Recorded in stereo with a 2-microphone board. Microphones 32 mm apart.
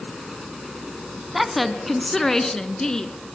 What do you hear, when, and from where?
1.3 s a woman speaking: 5° right (ahead or behind), 1.3 m; by 3.1 s 20° left (ahead or behind), 2.0 m